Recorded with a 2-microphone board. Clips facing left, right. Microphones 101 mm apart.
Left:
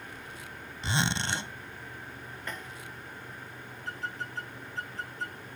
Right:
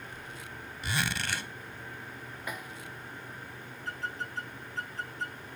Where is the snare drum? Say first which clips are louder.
Right 1 dB; 10° right (ahead or behind).